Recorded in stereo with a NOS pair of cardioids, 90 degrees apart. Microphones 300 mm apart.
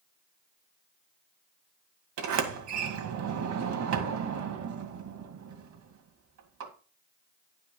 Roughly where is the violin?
I don't hear a violin.